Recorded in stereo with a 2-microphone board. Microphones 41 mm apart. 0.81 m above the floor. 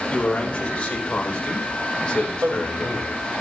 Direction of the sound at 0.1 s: 25° left (ahead or behind).